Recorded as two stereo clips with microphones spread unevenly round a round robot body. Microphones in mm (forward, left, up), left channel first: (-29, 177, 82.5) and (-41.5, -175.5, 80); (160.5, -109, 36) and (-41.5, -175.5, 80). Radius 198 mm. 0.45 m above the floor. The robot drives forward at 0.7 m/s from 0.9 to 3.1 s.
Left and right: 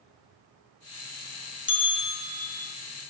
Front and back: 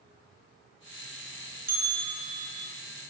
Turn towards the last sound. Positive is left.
turn(degrees=160)